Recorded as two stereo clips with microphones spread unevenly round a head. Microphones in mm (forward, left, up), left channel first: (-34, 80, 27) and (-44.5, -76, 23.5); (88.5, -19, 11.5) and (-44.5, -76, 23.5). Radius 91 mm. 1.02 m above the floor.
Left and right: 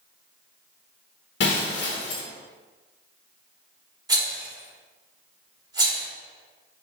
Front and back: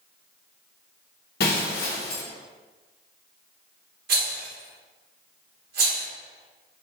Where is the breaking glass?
65° left, 0.9 m.